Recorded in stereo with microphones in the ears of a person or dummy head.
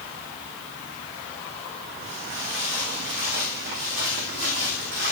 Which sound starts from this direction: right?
Footsteps, at 2.0 s.